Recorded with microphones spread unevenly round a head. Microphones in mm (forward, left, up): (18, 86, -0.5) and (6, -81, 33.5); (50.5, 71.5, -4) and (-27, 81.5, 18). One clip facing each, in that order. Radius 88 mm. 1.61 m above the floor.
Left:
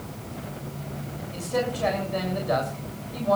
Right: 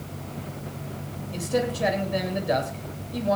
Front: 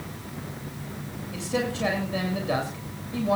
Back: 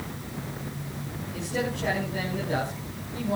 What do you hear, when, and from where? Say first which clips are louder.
1.3 s a man speaking: right 2 dB, front 2 dB; 30° right, 7 m